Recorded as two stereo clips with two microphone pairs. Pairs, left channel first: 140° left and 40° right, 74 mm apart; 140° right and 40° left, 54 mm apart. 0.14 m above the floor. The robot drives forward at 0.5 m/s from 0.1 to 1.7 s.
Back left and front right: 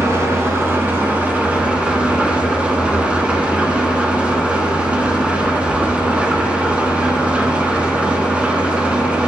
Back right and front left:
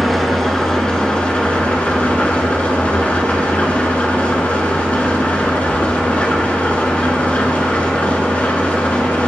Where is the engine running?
55° right, 1.7 m; by 9.3 s 100° right, 1.6 m.